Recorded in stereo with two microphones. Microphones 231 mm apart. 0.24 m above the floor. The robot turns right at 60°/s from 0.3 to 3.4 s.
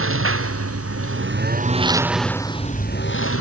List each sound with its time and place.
0.0 s a lawn mower: 115° right; by 3.4 s 70° left